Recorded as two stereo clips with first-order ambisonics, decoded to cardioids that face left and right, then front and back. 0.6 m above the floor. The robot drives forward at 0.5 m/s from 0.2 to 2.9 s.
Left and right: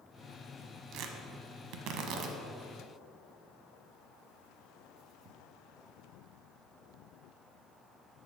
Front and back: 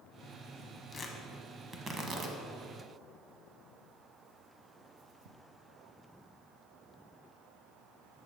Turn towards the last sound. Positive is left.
turn(degrees=-140)